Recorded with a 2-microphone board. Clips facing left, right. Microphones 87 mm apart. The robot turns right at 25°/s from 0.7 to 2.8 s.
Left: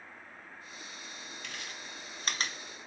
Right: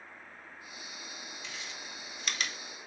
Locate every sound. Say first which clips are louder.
1.4 s chewing: left 1 dB; 60° left (ahead or behind), 0.6 m; by 2.9 s 25° left (ahead or behind), 0.6 m